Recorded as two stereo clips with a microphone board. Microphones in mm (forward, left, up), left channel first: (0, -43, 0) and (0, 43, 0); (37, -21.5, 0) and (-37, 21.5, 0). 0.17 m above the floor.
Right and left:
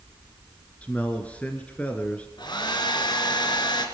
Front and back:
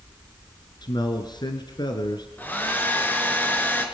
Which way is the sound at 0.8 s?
20° right.